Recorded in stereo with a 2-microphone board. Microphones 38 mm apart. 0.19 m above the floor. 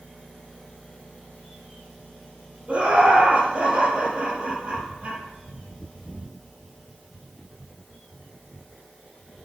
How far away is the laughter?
About 5.5 m.